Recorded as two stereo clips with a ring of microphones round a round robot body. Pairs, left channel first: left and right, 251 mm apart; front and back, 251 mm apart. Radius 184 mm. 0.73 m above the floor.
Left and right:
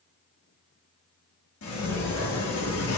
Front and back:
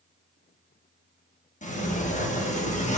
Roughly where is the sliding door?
Ahead left.